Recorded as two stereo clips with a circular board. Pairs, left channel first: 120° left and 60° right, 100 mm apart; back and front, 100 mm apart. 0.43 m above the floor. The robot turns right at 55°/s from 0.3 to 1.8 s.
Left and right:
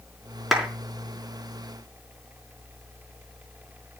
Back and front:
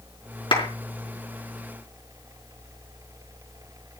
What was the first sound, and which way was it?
A clap, 145° right.